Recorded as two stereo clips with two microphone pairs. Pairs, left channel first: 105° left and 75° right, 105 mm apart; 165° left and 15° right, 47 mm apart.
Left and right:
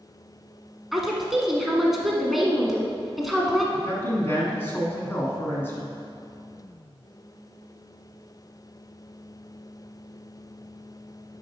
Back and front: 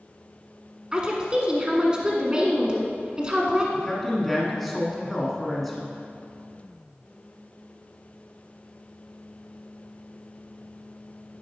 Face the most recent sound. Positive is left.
turn(degrees=80)